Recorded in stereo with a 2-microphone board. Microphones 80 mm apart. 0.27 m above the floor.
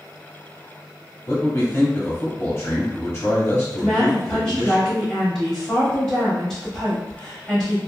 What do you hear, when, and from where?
1.3 s a man speaking: 30° left (ahead or behind), 1.5 m
3.8 s a woman speaking: 5° left (ahead or behind), 1.2 m